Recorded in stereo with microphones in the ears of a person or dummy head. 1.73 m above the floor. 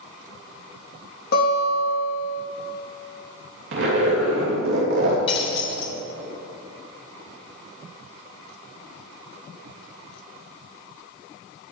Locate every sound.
1.3 s a guitar: 55° left (ahead or behind), 3 m
3.7 s a zipper: 70° right (ahead or behind), 3 m
5.3 s breaking glass: 35° left (ahead or behind), 2.5 m